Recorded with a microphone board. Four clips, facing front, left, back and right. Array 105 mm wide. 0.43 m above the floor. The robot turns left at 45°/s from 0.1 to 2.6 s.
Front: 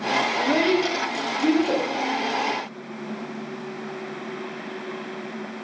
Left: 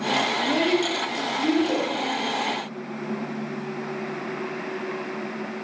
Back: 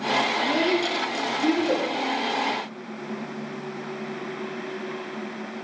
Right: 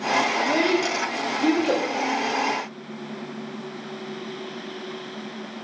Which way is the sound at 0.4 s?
30° right.